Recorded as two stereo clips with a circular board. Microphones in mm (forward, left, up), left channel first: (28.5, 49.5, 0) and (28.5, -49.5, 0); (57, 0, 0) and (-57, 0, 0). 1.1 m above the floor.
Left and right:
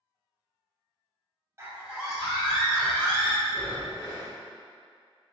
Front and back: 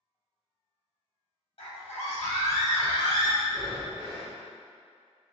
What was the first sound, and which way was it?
A scream, 30° right.